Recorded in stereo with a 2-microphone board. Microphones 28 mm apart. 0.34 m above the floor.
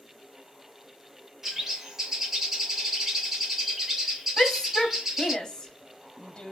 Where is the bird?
10° right (ahead or behind), 1.0 m.